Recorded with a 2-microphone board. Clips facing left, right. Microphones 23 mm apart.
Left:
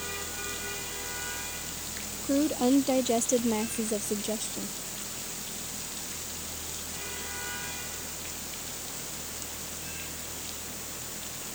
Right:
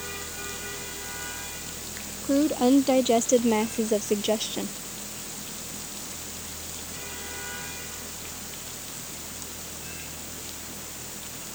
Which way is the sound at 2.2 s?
15° right (ahead or behind).